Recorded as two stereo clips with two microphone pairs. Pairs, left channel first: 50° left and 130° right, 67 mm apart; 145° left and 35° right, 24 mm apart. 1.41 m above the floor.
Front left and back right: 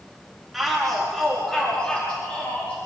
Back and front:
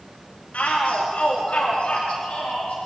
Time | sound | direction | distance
0.5 | a shout | 135° left | 3.5 m